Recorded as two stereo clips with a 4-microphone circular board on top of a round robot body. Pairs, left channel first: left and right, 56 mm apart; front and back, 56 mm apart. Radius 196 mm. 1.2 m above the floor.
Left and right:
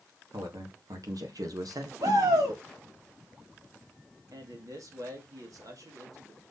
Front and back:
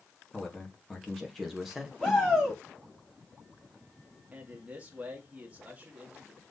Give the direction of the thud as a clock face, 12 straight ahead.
I don't hear a thud.